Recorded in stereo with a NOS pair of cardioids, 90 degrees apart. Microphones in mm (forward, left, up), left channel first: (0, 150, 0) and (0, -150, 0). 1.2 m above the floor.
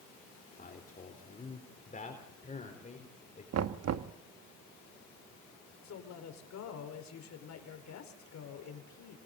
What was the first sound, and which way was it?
A man speaking, 30° left.